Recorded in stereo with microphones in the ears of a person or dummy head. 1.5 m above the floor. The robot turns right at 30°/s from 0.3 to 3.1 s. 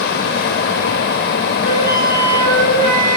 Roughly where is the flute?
Behind left.